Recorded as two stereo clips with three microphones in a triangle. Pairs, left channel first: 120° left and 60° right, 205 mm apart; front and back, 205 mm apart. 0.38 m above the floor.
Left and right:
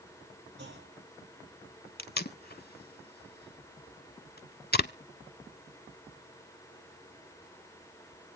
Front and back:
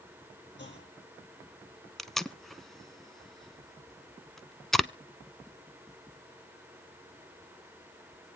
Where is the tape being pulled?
90° left, 0.6 m.